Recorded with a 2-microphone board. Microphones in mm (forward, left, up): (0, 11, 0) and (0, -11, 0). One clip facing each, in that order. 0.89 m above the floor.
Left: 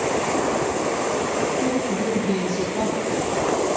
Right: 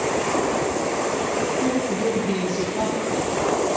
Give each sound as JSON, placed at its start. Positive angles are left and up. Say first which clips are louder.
{"t": 1.6, "sound": "a woman speaking", "louder": "right 1 dB", "side_deg": 0, "distance_m": 7.0}